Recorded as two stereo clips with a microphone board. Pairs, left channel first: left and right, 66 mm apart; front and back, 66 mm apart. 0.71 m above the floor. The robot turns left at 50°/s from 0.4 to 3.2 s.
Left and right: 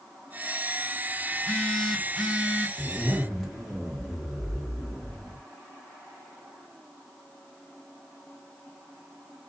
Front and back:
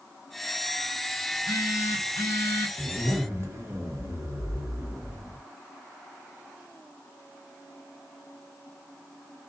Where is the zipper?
155° right, 1.2 m; by 5.4 s 175° right, 1.2 m.